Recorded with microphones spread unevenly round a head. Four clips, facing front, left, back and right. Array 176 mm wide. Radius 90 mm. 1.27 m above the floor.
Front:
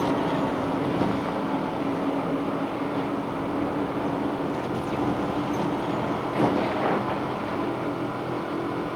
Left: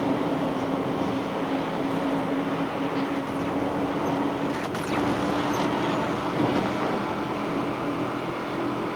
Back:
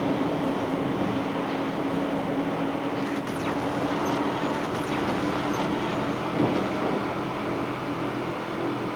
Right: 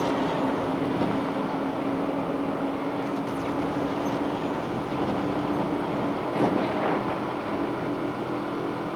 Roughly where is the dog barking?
I don't hear a dog barking.